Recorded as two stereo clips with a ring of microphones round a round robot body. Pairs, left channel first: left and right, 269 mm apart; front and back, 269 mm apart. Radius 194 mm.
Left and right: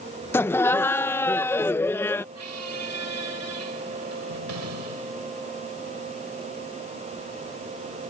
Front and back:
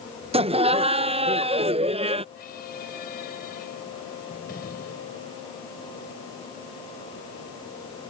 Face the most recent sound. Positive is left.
turn(degrees=-65)